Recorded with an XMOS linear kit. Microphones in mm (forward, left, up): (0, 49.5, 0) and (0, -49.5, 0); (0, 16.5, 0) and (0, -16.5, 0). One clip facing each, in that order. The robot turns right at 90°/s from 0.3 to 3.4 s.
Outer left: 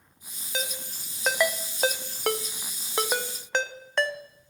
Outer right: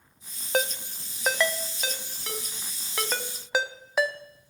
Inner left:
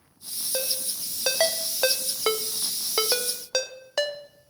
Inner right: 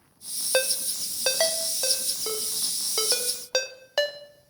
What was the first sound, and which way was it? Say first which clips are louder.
A ringtone: outer right 8 dB, inner right 6 dB; 55° right (ahead or behind).